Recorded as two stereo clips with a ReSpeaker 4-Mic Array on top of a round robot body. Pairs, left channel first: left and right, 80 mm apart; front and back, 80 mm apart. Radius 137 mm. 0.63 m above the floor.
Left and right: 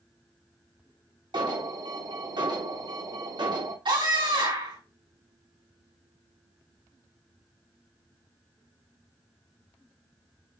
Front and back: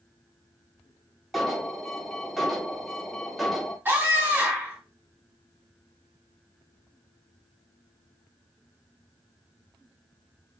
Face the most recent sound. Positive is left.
turn(degrees=-115)